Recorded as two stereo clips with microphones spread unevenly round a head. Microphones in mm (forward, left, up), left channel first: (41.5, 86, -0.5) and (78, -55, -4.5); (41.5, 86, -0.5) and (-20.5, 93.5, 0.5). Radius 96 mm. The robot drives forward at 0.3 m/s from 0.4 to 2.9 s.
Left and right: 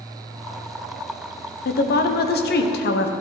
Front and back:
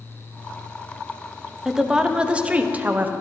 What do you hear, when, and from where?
1.6 s a woman speaking: 90° left, 1.1 m; by 3.1 s 110° left, 1.1 m